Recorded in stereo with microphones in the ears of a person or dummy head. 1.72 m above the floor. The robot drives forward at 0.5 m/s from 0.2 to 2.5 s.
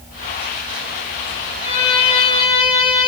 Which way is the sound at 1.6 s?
25° left (ahead or behind).